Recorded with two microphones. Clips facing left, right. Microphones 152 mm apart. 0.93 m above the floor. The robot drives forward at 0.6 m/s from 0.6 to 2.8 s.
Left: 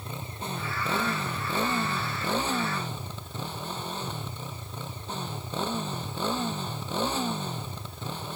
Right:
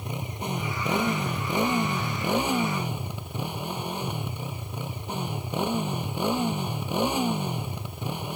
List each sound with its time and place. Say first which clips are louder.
0.0 s a motorcycle: right 4 dB; 15° right (ahead or behind)